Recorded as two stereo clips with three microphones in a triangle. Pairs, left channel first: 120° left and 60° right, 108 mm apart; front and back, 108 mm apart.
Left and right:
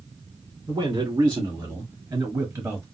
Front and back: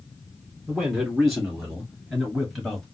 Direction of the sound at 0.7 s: 90° right.